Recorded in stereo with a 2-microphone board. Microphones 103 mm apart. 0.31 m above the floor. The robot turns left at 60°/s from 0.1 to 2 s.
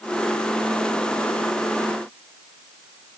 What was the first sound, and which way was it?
Only background noise.